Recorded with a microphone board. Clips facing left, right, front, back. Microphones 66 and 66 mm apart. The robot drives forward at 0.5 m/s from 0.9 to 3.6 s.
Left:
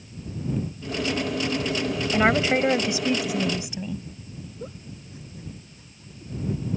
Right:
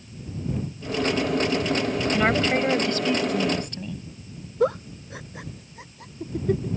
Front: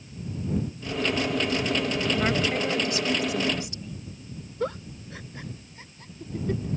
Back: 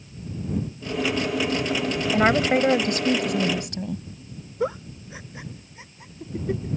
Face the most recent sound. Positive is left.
turn(degrees=-105)